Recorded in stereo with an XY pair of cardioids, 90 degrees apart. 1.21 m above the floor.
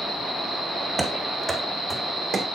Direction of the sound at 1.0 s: 20° right.